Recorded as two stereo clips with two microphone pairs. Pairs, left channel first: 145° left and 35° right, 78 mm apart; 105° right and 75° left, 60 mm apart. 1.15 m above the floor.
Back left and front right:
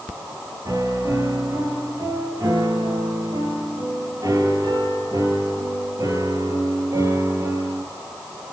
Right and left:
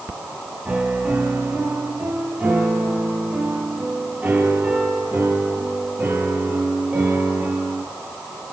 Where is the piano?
5° left, 8.5 m.